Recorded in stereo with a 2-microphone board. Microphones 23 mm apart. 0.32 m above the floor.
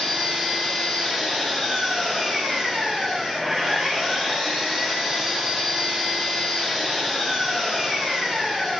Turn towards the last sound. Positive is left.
turn(degrees=-15)  # may be behind; listen again after turning